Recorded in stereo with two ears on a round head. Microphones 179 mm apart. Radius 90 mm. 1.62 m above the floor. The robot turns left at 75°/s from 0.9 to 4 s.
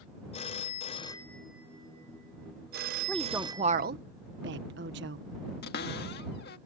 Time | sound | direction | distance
0.3 | a phone ringing | 40° left | ?
3.1 | a woman speaking | 10° left (ahead or behind) | ?
5.6 | a cupboard door | 50° left (ahead or behind) | ?